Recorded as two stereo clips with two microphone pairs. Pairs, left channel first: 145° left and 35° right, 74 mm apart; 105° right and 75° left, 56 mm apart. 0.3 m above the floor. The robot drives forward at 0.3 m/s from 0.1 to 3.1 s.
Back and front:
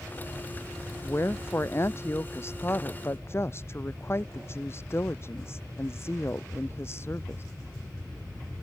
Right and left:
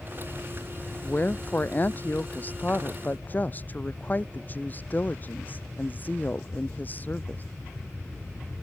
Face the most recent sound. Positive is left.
turn(degrees=-160)